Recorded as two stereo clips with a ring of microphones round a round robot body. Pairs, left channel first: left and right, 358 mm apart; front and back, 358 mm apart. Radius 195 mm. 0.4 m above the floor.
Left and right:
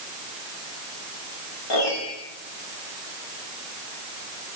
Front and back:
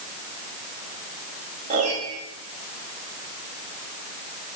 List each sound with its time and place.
1.7 s a piano: 105° left, 9 m